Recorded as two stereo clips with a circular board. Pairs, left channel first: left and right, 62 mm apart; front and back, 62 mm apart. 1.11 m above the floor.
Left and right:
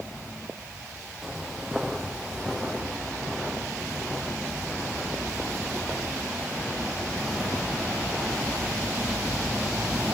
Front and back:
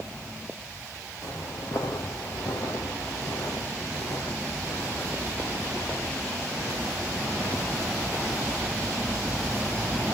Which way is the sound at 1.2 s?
5° right.